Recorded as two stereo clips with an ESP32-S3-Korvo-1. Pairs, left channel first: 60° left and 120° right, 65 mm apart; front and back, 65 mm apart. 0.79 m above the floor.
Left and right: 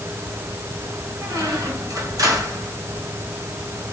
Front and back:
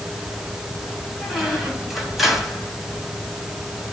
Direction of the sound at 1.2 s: 95° right.